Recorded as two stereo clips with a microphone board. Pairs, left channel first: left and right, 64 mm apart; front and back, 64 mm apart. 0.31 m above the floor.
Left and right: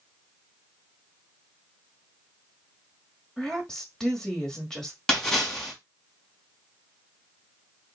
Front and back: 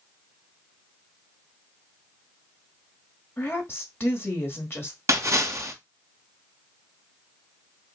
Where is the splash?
170° left, 2.5 m.